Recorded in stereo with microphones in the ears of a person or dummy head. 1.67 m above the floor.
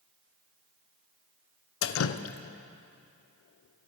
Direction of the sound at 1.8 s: 70° left (ahead or behind).